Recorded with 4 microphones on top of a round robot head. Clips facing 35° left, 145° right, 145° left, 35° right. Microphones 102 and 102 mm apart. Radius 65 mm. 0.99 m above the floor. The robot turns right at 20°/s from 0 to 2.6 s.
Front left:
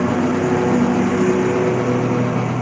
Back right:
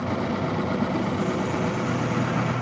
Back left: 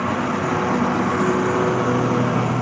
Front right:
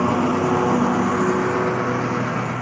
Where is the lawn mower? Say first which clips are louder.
Front left 9 dB, front right 3 dB; 30° left; by 2.6 s 80° left.